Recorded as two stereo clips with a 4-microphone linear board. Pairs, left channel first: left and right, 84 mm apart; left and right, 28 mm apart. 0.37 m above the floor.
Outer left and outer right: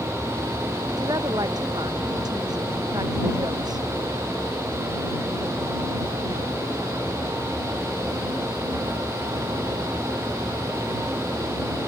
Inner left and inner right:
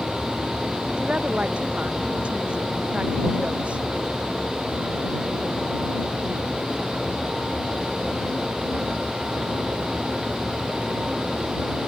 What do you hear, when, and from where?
1.0 s a woman speaking: 50° right (ahead or behind)